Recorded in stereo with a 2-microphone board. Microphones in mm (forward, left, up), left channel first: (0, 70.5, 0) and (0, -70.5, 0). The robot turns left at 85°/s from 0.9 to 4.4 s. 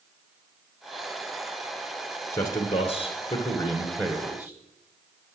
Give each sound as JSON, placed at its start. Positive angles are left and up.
{"t": 2.3, "sound": "a man speaking", "azimuth_deg": 155, "distance_m": 1.4}